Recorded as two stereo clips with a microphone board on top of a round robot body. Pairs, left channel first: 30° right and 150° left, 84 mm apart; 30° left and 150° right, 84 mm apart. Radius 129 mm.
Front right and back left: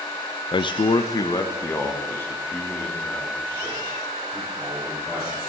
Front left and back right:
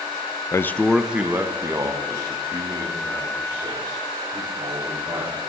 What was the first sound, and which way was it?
A man speaking, 20° right.